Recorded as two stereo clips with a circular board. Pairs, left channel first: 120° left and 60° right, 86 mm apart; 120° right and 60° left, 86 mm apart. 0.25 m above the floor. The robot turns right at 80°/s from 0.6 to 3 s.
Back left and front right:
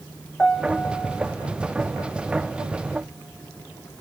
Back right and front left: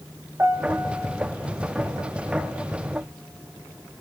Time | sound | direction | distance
0.4 | a piano | 60° left | 0.8 m